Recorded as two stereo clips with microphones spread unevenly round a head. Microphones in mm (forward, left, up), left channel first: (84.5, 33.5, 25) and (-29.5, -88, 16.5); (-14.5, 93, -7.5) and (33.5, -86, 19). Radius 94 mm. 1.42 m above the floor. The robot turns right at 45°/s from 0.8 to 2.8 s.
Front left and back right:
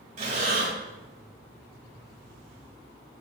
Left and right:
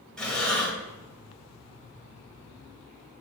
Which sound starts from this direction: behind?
Breathing, at 0.2 s.